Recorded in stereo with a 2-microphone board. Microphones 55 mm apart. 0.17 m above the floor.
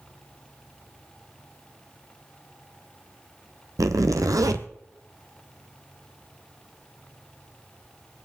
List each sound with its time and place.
3.8 s a zipper: 85° right, 1.0 m